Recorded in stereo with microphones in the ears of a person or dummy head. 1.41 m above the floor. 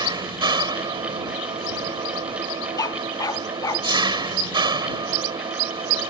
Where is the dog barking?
20° left (ahead or behind).